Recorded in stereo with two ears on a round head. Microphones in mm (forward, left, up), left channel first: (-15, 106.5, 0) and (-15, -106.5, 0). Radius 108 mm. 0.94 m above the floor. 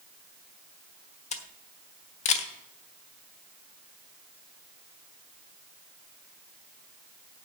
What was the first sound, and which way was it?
A camera shutter, 30° left (ahead or behind).